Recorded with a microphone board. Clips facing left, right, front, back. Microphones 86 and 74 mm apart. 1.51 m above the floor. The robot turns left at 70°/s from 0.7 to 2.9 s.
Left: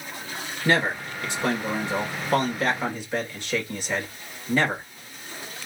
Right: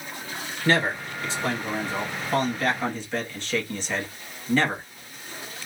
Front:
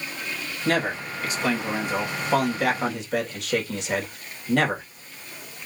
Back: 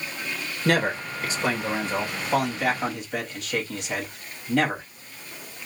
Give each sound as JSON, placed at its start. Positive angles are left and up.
{"t": 0.7, "sound": "a man speaking", "azimuth_deg": 165, "distance_m": 1.9}